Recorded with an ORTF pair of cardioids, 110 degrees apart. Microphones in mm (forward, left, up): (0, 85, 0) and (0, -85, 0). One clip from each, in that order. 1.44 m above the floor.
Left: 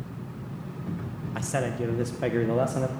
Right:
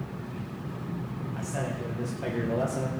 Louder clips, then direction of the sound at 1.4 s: Left 6 dB; 65° left.